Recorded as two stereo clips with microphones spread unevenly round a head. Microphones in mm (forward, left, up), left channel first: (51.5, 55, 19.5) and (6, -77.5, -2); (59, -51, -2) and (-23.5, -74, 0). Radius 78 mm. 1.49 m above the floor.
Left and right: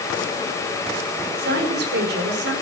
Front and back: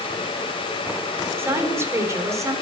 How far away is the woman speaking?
About 5 m.